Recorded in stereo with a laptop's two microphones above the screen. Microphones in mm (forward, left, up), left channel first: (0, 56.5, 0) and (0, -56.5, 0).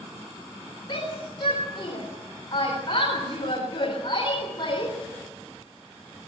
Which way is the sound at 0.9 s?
45° left (ahead or behind).